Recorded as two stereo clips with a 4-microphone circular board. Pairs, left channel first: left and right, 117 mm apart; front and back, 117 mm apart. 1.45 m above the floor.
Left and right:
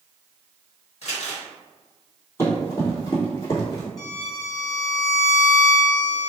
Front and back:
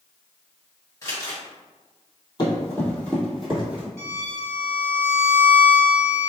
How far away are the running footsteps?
About 1.8 m.